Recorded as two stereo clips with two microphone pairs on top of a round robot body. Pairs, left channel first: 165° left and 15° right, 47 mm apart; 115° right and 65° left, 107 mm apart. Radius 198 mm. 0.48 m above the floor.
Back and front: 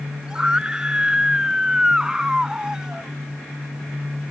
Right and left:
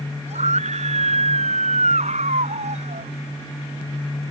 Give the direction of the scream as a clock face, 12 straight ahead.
10 o'clock.